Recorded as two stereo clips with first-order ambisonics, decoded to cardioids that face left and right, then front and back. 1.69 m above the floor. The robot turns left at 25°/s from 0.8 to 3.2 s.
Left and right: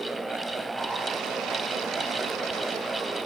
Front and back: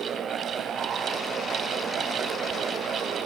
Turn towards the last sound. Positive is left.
No sound to turn to.